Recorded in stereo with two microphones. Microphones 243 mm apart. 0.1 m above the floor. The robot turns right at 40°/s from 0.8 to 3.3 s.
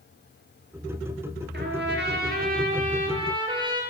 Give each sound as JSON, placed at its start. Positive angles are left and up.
{"t": 1.5, "sound": "a trumpet", "azimuth_deg": -100, "distance_m": 1.5}